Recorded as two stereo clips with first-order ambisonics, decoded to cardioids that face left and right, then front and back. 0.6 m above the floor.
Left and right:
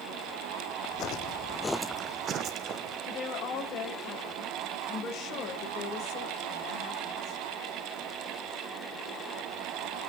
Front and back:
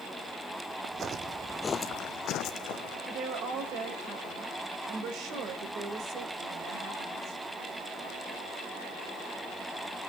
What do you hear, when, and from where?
0.8 s footsteps: 125° left, 1.3 m; by 3.0 s 40° right, 2 m
3.1 s a woman speaking: 135° left, 3.5 m